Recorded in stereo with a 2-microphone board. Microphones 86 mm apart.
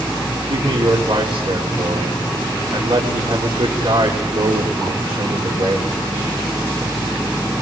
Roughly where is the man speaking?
Right.